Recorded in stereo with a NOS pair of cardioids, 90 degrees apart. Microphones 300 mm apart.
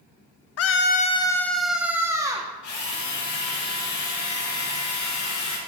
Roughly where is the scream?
Ahead left.